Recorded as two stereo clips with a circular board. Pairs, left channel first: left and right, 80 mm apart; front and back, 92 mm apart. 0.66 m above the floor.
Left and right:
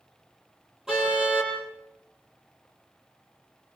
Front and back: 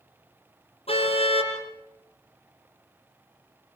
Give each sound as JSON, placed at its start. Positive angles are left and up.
{"t": 0.9, "sound": "a car horn", "azimuth_deg": -5, "distance_m": 7.5}